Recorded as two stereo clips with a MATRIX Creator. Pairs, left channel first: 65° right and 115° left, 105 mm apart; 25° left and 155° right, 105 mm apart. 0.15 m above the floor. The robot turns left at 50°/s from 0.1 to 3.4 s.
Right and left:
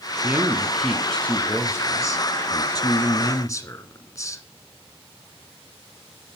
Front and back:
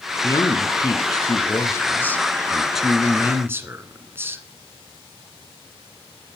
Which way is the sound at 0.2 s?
55° left.